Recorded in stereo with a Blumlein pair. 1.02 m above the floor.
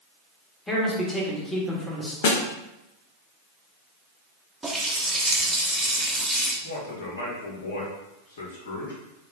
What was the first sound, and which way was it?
A man speaking, 5° left.